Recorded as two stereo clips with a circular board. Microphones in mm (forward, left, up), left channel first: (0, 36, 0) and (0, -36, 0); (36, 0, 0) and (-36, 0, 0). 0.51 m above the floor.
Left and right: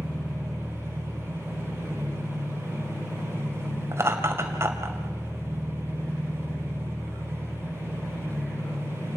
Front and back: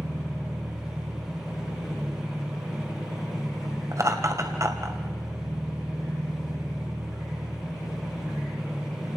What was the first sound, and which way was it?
An engine running, 135° left.